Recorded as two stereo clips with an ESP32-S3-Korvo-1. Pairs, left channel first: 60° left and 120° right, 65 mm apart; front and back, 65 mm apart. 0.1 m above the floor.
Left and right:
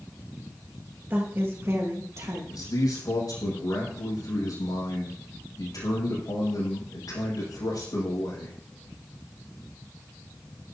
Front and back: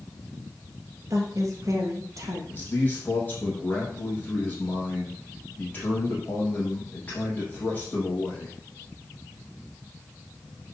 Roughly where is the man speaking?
Ahead left.